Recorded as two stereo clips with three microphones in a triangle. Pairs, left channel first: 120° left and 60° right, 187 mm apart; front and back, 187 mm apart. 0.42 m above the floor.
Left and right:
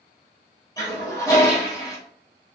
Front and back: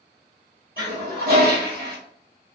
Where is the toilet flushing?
175° right, 1.2 m.